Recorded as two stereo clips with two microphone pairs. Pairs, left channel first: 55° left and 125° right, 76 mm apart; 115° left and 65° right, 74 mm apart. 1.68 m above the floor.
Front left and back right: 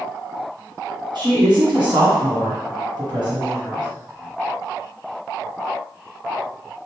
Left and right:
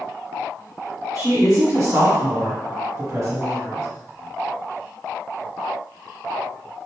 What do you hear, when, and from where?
1.1 s a woman speaking: 105° right, 1.2 m